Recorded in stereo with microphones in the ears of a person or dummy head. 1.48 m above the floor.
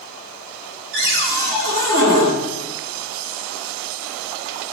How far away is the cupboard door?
About 3.5 m.